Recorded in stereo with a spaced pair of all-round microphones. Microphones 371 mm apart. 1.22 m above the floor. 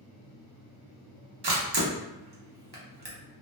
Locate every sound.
1.4 s a camera shutter: 80° right, 0.7 m